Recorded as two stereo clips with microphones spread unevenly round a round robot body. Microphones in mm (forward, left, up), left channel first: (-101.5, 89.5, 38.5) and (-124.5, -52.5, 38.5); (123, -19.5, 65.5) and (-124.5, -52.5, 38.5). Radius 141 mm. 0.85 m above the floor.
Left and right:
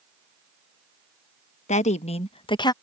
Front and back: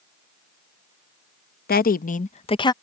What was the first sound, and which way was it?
A woman speaking, 60° left.